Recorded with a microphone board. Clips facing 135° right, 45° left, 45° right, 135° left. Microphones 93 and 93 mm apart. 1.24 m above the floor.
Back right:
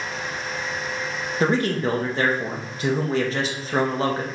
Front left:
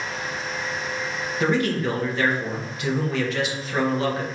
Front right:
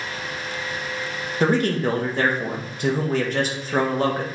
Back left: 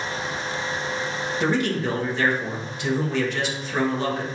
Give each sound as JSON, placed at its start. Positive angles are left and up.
{"t": 1.4, "sound": "a man speaking", "azimuth_deg": -85, "distance_m": 0.5}